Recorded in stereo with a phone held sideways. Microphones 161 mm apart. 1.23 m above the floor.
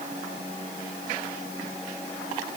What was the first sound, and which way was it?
Only background noise.